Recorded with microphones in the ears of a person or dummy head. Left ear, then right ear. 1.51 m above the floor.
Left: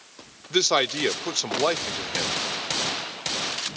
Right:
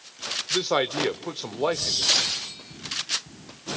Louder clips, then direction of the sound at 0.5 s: Left 4 dB; 75° left (ahead or behind).